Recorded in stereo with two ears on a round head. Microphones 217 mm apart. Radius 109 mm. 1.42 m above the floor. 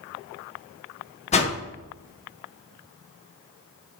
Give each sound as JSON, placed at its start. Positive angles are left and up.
{"t": 1.3, "sound": "a whoosh", "side_deg": 30, "distance_m": 1.3}